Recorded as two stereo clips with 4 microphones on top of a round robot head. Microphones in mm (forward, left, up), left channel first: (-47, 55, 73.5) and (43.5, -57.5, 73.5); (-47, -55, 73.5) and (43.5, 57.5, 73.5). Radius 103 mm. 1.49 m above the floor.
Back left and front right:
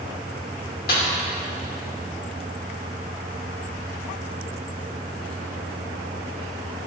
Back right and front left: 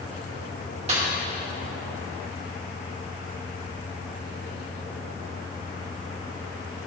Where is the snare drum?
100° left, 2.5 m.